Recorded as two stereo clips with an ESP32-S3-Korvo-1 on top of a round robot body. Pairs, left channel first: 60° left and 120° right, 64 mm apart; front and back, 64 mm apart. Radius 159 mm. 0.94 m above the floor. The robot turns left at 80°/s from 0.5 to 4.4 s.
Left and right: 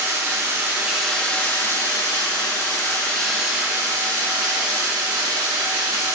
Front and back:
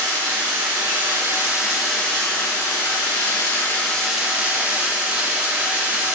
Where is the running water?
165° right, 1.9 m; by 6.2 s 120° right, 1.9 m.